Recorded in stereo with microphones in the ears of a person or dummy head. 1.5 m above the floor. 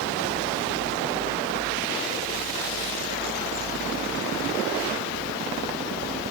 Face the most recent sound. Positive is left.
No sound to turn to.